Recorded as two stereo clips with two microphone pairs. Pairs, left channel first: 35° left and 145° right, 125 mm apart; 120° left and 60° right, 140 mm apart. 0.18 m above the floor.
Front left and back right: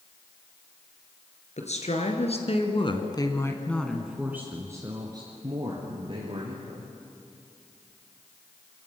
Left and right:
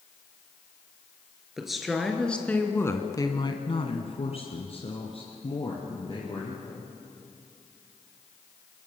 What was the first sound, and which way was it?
A woman speaking, 30° left.